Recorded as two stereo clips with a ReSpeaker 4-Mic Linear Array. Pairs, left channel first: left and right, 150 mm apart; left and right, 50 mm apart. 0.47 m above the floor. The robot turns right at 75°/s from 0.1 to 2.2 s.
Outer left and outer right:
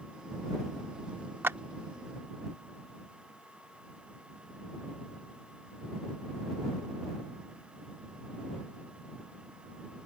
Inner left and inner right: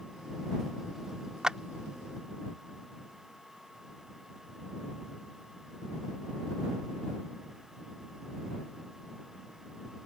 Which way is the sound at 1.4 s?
15° right (ahead or behind).